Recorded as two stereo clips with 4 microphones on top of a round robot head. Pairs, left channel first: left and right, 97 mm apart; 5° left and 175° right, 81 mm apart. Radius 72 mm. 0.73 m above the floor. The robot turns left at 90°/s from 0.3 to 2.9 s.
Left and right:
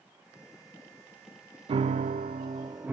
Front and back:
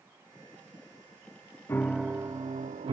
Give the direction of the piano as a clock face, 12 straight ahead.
2 o'clock.